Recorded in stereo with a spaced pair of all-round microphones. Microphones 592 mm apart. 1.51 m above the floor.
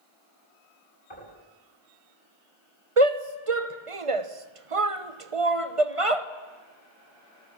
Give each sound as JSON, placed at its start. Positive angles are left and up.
{"t": 1.1, "sound": "knocking", "side_deg": 50, "distance_m": 8.5}
{"t": 3.0, "sound": "a shout", "side_deg": -60, "distance_m": 1.2}